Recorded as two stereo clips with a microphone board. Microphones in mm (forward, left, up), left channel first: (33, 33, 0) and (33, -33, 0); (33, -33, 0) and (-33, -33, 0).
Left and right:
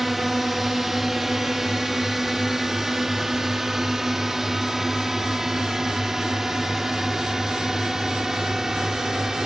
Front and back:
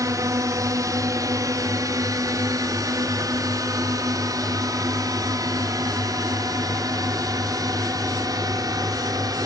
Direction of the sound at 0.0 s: 175° right.